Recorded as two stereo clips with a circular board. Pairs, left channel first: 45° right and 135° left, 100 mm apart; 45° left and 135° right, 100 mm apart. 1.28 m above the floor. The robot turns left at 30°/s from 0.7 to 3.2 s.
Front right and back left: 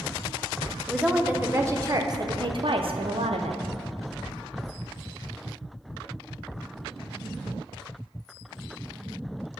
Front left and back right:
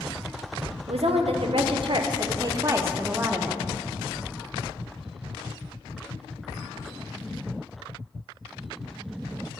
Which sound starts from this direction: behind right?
A woman speaking, at 0.9 s.